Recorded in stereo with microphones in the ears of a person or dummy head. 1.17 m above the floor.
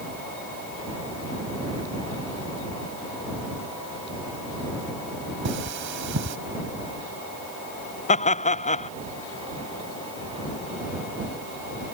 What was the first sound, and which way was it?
Cutlery clinking, 55° right (ahead or behind).